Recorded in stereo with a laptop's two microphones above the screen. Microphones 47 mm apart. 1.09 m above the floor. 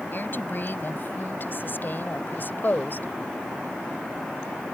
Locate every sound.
0.1 s a woman speaking: 45° left (ahead or behind); by 3.1 s 40° left (ahead or behind)